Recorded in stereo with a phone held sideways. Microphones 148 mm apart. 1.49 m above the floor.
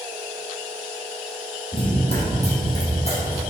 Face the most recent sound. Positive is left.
turn(degrees=45)  # may be behind; listen again after turning